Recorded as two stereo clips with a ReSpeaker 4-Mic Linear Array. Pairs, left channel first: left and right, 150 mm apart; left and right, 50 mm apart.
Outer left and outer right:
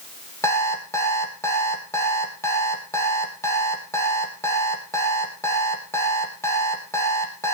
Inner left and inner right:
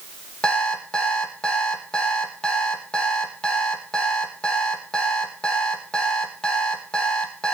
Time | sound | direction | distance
0.4 | an alarm clock | 20° left (ahead or behind) | 3 m